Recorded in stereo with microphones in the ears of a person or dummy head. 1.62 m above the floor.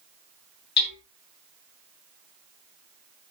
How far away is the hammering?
About 10 m.